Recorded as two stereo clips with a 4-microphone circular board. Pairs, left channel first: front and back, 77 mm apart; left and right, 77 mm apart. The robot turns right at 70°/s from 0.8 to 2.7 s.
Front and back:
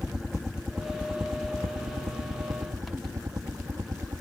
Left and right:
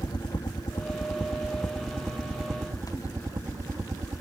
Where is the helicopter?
100° left; by 4.2 s 140° right.